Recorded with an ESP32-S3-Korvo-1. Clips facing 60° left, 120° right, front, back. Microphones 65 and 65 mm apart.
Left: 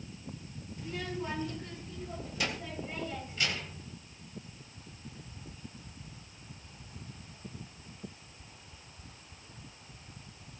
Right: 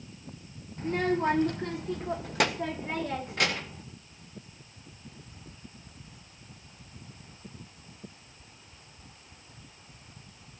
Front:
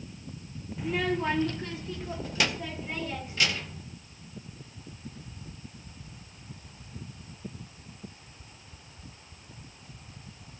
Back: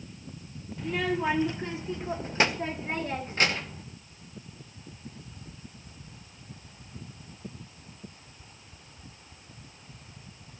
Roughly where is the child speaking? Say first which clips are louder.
Right 11 dB, even; right.